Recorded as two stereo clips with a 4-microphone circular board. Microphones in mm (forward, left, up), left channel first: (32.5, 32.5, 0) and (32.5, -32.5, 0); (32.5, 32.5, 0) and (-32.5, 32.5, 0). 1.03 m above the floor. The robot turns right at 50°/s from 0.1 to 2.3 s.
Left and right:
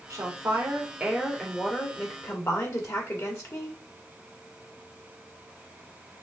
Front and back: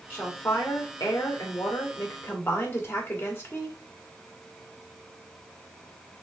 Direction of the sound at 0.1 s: 55° right.